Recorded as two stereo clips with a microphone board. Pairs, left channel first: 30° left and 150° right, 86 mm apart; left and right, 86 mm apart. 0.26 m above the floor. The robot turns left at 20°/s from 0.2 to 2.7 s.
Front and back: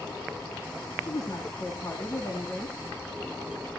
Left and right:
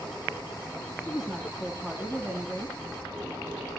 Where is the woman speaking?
Straight ahead, 2.5 m; by 2.8 s 35° right, 2.5 m.